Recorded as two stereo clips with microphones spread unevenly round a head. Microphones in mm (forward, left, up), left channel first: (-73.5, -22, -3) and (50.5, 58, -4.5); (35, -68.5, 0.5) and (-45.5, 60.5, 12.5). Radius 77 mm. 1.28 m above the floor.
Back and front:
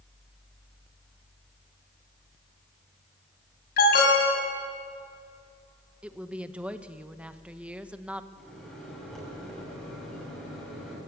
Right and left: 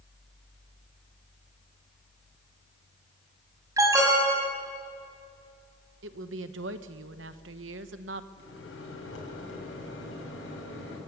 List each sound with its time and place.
3.8 s an alarm: 170° right, 5.5 m
6.0 s a woman speaking: 115° left, 1.2 m
8.4 s a microwave: 60° right, 6.5 m